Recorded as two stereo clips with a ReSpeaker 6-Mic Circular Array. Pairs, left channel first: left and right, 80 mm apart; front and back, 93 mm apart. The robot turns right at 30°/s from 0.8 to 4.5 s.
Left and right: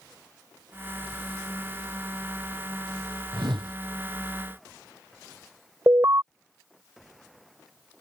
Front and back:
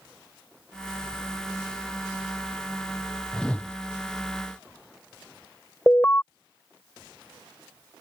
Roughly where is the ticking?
I don't hear ticking.